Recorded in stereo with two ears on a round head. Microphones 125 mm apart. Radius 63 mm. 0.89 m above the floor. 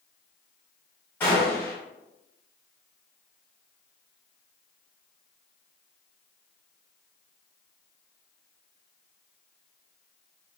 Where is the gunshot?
15° left (ahead or behind), 1.2 m.